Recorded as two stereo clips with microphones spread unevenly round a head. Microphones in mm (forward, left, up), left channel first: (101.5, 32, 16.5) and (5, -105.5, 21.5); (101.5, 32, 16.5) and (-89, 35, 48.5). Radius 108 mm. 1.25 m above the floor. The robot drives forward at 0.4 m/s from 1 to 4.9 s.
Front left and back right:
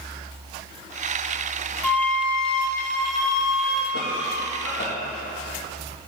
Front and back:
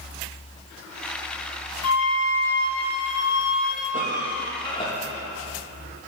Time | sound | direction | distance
1.8 | a flute | 30° right | 3 m
3.9 | a cough | 55° left | 2 m